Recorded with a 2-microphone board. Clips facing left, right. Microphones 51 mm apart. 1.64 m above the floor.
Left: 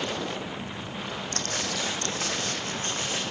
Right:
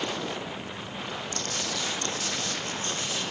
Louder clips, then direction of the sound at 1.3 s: Left 3 dB; 50° left (ahead or behind).